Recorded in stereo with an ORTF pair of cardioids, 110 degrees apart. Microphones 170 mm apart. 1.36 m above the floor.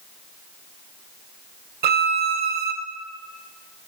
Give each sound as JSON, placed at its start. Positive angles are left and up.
{"t": 1.8, "sound": "a violin", "azimuth_deg": -65, "distance_m": 0.9}